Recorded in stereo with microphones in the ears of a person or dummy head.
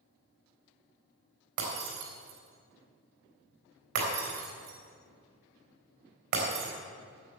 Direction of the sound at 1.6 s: 65° right (ahead or behind).